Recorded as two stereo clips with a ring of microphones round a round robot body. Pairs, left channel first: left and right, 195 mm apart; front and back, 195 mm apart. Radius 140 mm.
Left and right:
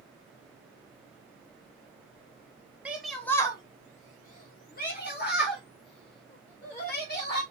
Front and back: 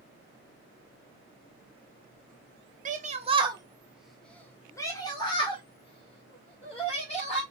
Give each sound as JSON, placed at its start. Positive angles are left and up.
{"t": 2.9, "sound": "a shout", "azimuth_deg": -170, "distance_m": 1.3}